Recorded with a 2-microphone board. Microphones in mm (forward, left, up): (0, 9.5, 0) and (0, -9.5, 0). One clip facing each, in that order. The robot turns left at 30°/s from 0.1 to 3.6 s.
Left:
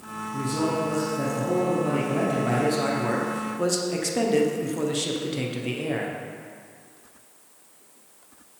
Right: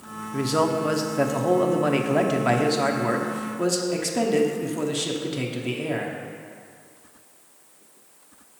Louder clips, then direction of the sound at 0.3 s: Right 4 dB; 75° right.